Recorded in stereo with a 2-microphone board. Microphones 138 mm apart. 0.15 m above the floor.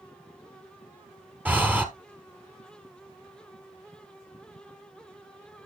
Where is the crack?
I don't hear a crack.